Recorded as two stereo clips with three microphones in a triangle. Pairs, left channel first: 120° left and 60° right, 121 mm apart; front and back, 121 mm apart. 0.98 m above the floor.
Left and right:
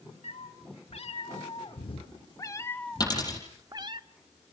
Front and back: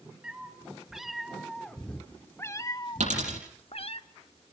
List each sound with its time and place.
0.2 s a cat meowing: 100° left, 1.8 m; by 4.0 s 25° right, 0.7 m
3.0 s a dropped coin: 175° left, 7.5 m